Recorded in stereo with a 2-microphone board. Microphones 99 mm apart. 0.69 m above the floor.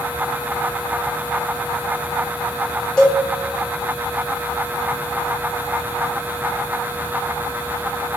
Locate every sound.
3.0 s a cowbell: 10° left (ahead or behind), 0.9 m